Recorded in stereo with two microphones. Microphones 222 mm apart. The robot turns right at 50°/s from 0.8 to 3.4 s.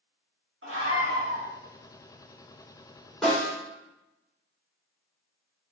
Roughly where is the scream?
Right.